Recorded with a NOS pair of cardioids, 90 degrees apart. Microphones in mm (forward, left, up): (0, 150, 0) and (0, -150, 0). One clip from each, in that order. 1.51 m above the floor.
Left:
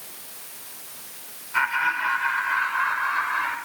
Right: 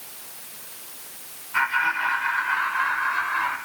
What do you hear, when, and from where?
1.5 s laughter: 5° right, 5.5 m; by 3.6 s straight ahead, 6 m